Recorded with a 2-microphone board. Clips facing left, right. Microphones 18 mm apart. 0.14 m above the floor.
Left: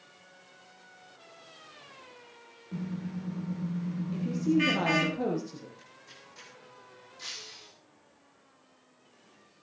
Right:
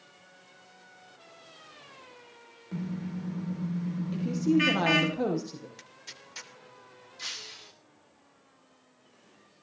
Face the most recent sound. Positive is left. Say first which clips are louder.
# right 3 dB
turn(degrees=-25)  # may be behind; listen again after turning